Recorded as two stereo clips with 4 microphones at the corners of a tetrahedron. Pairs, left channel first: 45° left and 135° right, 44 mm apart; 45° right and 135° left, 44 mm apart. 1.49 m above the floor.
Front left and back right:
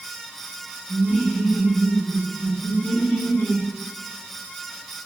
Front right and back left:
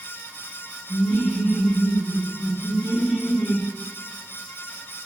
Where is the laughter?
60° right, 1.3 m; by 3.7 s 20° left, 1.4 m.